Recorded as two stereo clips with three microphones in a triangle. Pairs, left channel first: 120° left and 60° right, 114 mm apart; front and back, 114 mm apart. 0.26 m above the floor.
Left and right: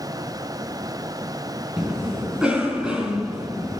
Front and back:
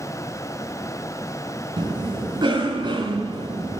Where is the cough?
145° right, 3 m.